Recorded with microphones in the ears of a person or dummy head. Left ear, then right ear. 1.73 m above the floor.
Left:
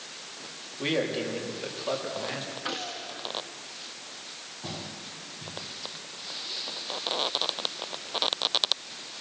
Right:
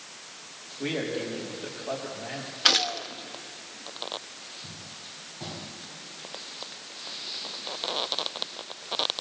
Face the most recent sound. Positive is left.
turn(degrees=-75)  # may be behind; listen again after turning